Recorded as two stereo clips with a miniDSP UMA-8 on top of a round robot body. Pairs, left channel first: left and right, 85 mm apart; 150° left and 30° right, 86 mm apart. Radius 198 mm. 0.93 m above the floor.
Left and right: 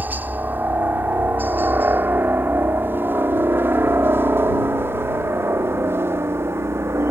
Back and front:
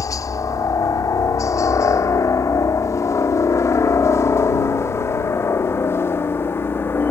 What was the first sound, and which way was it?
A helicopter, 160° right.